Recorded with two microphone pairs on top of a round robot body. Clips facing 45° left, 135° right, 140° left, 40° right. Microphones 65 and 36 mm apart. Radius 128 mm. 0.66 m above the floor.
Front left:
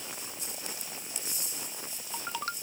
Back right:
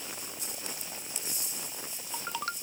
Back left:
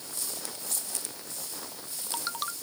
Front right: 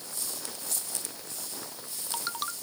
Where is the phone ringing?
I don't hear a phone ringing.